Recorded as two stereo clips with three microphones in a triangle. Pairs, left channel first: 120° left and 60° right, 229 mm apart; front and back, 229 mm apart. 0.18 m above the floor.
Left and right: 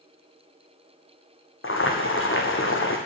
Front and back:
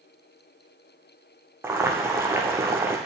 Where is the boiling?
100° left, 2 m.